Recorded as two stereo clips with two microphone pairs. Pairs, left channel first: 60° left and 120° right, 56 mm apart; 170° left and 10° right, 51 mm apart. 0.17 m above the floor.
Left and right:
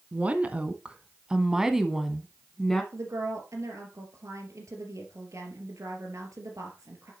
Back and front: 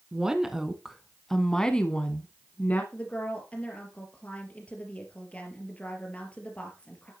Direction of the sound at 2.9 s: 130° right.